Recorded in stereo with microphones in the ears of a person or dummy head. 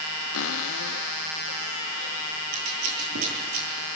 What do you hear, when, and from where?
0.3 s a cupboard door: 75° left (ahead or behind), 0.6 m
2.5 s scissors: 85° right, 9.5 m